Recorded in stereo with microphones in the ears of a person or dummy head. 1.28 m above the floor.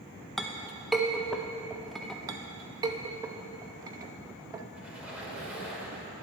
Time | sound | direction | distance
0.4 | a clink | centre (ahead or behind) | 0.6 m
2.3 | a clink | 20° right (ahead or behind) | 0.6 m
4.8 | a squeak | 10° right (ahead or behind) | 2 m